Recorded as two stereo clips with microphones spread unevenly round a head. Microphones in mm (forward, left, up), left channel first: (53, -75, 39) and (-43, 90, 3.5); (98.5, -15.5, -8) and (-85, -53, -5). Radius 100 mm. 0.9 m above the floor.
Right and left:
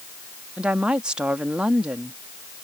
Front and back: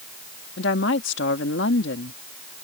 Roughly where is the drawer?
No drawer in this recording.